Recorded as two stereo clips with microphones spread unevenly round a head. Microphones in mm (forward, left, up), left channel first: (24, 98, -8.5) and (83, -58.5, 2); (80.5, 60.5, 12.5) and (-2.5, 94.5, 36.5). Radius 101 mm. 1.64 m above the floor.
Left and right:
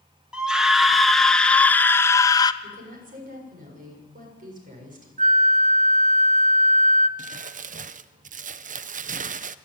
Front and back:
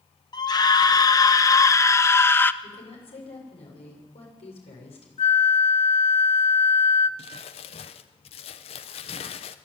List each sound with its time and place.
0.3 s a scream: 15° left, 2 m; by 2.5 s 45° left, 1.3 m
2.6 s a woman speaking: 35° right, 7 m
5.2 s a flute: 30° right, 0.9 m
7.2 s crumpling: 50° right, 0.6 m